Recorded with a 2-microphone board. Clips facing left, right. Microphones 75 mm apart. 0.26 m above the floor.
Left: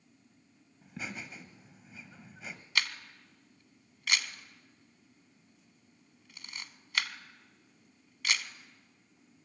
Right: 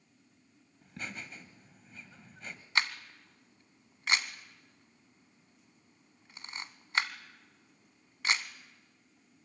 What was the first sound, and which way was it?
Laughter, 5° left (ahead or behind).